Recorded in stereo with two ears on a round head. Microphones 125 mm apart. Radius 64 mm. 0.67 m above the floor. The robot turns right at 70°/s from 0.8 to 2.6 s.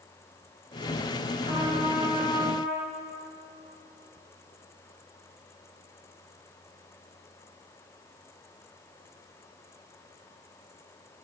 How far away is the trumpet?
About 4 m.